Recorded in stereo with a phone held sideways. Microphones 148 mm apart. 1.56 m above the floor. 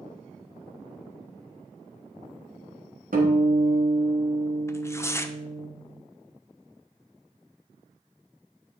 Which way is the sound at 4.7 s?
20° left (ahead or behind).